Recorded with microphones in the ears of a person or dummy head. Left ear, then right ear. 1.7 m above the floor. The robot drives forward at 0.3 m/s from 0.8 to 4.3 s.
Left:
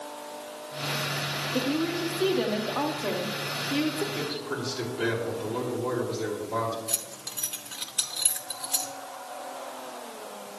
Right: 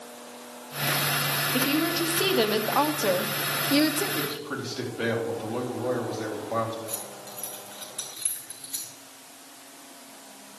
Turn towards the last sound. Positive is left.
turn(degrees=15)  # may be behind; listen again after turning